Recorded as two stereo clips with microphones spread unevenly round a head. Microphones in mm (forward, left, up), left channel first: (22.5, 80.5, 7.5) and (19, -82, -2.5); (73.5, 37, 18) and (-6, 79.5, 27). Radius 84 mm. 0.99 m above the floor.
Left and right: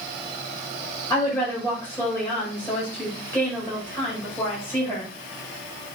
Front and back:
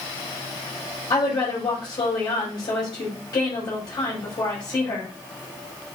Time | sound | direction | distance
1.1 | a woman speaking | 10° left | 5 m